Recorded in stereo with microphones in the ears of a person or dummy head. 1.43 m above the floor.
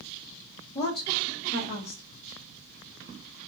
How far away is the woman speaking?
About 1.0 m.